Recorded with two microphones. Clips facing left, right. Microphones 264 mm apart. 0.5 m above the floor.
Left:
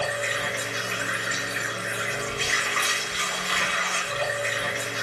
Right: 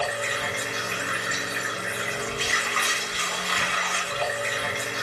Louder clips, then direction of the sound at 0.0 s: Even; 45° right (ahead or behind).